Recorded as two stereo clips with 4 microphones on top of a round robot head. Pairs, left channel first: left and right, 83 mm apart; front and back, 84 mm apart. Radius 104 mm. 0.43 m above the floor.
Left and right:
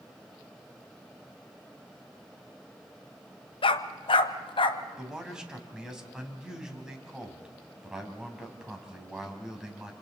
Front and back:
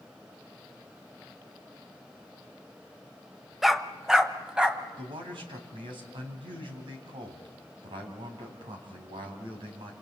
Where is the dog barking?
90° left, 0.9 m; by 4.8 s 100° left, 1.4 m.